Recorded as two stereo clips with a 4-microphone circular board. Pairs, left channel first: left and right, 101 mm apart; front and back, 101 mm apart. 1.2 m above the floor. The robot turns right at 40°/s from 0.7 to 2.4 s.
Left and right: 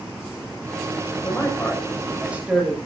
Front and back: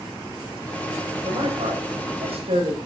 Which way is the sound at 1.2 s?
150° left.